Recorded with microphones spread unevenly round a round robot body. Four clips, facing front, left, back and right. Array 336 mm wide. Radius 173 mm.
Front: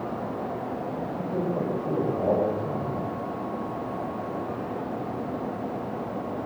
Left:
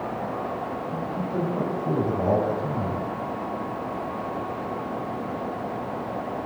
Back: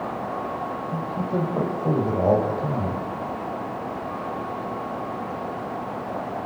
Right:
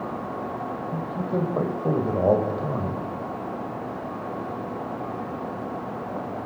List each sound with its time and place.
0.9 s a man speaking: 125° right, 5.5 m